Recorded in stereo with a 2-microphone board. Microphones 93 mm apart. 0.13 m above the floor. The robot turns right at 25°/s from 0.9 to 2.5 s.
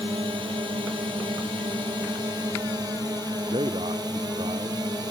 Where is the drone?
95° right; by 5.1 s 55° right.